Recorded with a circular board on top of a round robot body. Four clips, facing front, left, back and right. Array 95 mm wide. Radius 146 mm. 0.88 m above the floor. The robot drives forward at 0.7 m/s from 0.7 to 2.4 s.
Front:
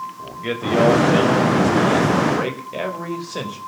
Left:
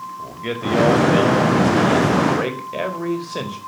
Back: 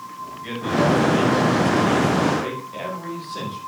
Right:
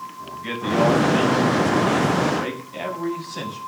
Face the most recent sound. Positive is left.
turn(degrees=55)